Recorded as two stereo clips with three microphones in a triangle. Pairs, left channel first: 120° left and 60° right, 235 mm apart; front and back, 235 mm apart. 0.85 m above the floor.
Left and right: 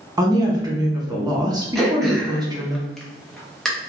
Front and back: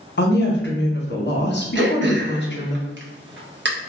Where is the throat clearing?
155° right, 0.6 m.